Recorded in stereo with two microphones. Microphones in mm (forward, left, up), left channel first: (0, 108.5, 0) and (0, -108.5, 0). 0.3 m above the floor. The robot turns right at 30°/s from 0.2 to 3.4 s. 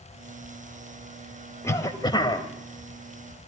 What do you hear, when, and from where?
1.6 s a cough: 15° left (ahead or behind), 1.6 m; by 2.5 s 25° left (ahead or behind), 1.6 m